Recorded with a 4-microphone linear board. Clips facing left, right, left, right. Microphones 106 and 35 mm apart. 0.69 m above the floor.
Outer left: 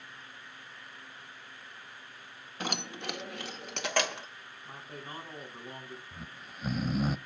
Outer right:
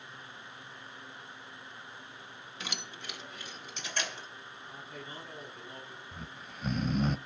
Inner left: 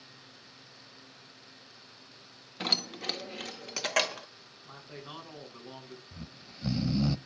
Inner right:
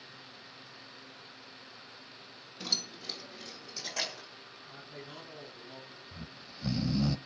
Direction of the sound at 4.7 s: 45° left (ahead or behind).